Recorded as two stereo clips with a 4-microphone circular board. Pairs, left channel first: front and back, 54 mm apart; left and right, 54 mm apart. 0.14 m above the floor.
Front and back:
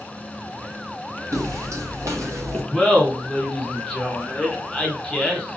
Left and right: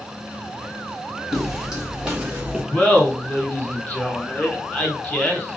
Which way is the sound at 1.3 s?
175° right.